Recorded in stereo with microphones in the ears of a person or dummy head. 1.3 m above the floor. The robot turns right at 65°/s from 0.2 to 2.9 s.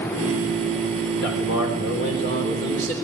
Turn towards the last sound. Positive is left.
turn(degrees=170)